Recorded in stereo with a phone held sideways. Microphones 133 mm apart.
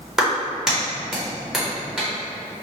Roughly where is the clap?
Centre.